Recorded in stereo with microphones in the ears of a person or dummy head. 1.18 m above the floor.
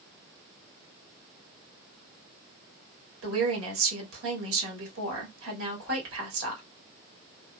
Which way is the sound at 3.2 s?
80° right.